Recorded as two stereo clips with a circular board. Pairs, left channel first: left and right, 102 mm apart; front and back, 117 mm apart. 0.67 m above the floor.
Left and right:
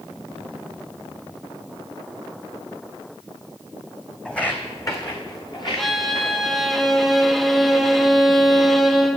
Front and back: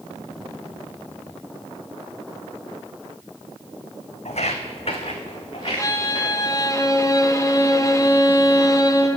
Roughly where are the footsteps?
Ahead.